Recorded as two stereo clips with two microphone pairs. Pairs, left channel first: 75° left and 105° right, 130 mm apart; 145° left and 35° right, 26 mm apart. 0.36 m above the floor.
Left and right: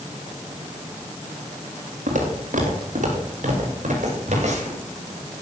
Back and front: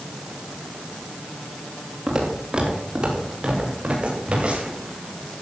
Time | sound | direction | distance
2.1 | footsteps | 90° right | 4.5 m